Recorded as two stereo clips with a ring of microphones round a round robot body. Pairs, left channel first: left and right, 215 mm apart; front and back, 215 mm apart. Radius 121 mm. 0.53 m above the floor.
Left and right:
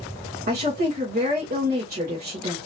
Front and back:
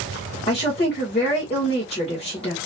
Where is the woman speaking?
55° right, 1.8 m.